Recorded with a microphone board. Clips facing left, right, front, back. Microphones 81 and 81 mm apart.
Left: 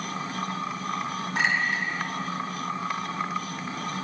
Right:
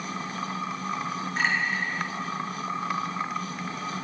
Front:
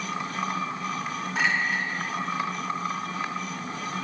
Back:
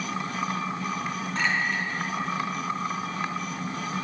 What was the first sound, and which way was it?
A clink, 85° left.